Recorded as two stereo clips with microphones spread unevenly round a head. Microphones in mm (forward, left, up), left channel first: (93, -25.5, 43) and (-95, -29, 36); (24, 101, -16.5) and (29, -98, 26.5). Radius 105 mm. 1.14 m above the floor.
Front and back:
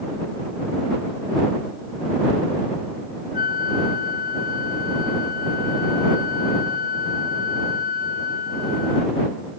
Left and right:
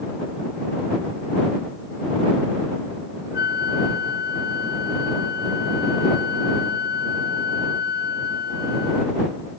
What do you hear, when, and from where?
3.3 s a flute: 50° left